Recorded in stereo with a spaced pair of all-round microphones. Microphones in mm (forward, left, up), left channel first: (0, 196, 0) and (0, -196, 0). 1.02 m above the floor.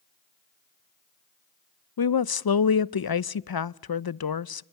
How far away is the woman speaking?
About 0.5 m.